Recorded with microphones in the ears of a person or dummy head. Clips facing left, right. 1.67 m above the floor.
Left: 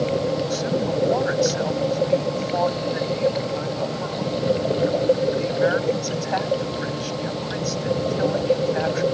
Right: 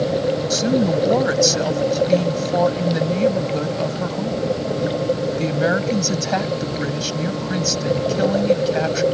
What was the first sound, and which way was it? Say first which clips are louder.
A woman speaking: right 5 dB; 45° right (ahead or behind).